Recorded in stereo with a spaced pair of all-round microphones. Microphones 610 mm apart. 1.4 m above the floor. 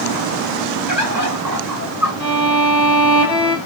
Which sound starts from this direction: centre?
A violin, at 2.2 s.